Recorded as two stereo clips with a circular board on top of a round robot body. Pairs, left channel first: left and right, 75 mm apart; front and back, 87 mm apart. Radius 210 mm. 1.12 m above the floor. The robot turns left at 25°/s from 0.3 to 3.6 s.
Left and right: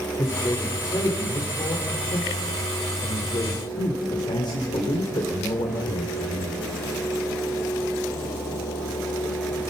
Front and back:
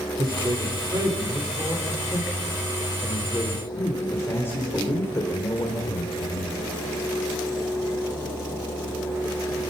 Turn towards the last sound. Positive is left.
turn(degrees=65)